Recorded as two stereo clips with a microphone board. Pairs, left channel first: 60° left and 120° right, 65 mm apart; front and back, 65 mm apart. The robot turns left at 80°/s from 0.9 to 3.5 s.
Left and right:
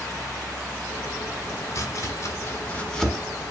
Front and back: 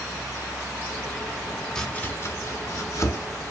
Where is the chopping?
75° left, 1.4 m; by 3.2 s 35° right, 1.4 m.